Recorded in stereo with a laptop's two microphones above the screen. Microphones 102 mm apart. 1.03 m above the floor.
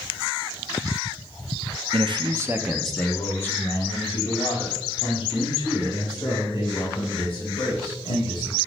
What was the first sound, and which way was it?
A man speaking, 65° right (ahead or behind).